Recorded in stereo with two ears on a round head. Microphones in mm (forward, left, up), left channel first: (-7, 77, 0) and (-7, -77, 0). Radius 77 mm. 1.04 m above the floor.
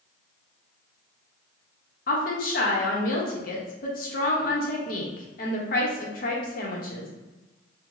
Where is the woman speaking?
50° left (ahead or behind), 0.9 m.